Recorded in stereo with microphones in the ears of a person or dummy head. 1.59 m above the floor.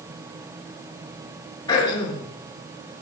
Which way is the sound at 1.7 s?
20° left (ahead or behind).